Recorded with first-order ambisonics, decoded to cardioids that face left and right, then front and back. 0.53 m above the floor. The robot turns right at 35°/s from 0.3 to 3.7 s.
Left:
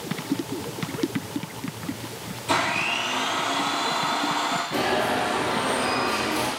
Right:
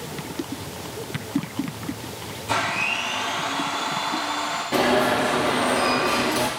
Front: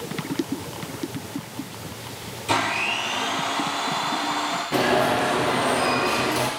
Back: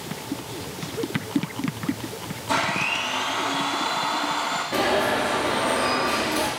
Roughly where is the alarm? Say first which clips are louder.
Right 7 dB, front 2 dB; ahead right.